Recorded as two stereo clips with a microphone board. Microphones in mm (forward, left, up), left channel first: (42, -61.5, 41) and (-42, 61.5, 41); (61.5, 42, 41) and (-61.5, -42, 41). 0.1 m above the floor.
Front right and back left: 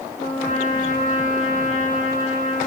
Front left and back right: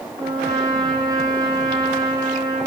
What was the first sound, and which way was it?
A trumpet, 85° right.